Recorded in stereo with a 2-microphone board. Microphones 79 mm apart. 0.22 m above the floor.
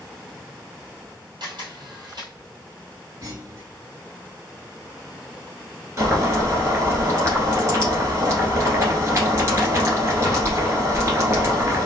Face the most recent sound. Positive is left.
turn(degrees=-40)  # may be behind; listen again after turning